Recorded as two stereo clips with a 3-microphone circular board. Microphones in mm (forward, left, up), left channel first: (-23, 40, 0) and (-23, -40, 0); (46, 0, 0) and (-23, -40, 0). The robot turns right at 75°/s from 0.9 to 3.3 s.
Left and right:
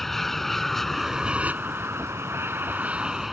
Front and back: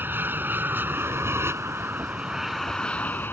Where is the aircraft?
175° left; by 3.3 s 5° right.